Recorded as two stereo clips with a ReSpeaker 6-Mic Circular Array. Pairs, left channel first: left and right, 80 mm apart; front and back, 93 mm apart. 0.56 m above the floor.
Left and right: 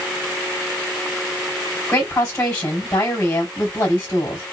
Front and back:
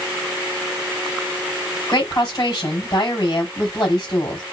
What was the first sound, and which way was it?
A woman speaking, 45° left.